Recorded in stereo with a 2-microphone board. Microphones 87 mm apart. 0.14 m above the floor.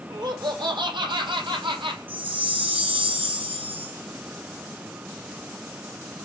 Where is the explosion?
I don't hear an explosion.